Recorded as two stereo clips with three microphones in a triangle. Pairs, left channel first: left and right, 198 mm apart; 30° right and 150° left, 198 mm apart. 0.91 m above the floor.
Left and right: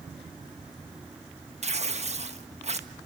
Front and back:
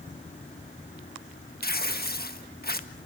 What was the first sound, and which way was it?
Tearing paper, 45° right.